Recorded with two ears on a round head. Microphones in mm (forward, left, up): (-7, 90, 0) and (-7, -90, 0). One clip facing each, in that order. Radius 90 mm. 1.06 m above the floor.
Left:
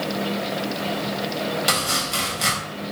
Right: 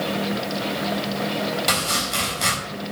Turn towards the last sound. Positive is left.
turn(degrees=5)  # may be behind; listen again after turning